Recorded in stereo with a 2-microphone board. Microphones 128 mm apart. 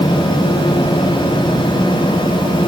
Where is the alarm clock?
No alarm clock in this recording.